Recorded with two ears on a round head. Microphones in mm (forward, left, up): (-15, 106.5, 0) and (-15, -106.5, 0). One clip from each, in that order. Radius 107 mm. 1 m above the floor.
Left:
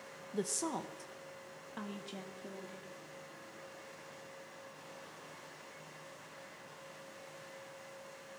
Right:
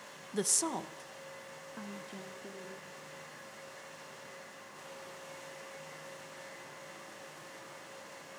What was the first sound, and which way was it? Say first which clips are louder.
A woman speaking: right 4 dB; 35° right (ahead or behind).